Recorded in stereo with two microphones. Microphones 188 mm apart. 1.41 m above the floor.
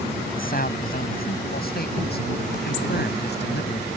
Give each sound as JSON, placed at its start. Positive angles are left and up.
{"t": 0.3, "sound": "a man speaking", "side_deg": 55}